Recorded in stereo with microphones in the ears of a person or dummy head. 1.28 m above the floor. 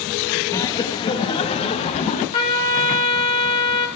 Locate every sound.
0.5 s laughter: 15° left (ahead or behind), 1.6 m; by 2.2 s 35° left (ahead or behind), 2.5 m
2.3 s a trumpet: 30° left (ahead or behind), 6.5 m